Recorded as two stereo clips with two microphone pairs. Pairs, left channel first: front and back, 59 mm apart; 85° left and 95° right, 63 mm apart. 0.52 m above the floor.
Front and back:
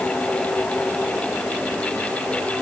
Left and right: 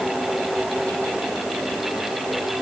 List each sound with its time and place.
Only background noise.